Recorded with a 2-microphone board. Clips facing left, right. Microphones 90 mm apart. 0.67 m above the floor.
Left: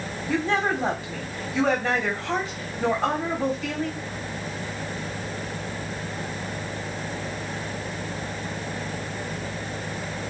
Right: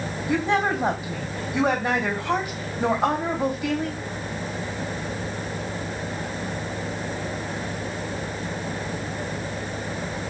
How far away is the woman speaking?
About 2.5 m.